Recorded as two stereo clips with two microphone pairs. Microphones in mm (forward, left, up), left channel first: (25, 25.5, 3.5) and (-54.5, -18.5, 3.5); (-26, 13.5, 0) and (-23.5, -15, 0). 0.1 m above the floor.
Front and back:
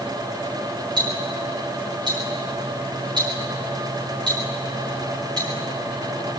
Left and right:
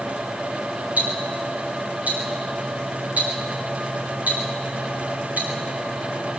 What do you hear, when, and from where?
1.0 s ticking: 105° right, 9 m